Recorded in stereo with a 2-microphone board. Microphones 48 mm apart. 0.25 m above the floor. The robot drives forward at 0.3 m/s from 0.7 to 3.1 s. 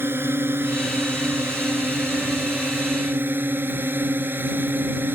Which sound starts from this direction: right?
A drone, at 0.0 s.